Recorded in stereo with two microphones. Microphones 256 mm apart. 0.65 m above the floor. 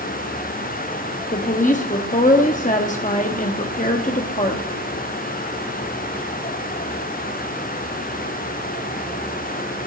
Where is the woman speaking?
30° left (ahead or behind), 1.0 m.